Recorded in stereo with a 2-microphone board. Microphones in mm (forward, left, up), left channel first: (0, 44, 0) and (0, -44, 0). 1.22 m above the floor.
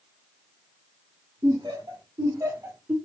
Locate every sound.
1.4 s laughter: 55° right (ahead or behind), 1.7 m; by 3.0 s 15° right (ahead or behind), 0.7 m